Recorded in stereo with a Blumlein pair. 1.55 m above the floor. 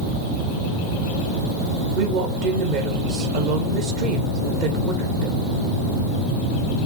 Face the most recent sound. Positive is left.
turn(degrees=-40)